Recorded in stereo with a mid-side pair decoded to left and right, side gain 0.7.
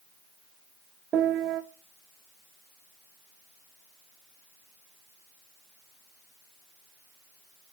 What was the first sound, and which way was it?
A piano, 30° right.